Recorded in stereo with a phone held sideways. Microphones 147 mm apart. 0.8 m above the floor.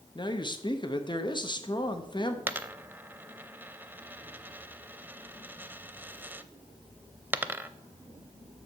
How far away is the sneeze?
I don't hear a sneeze.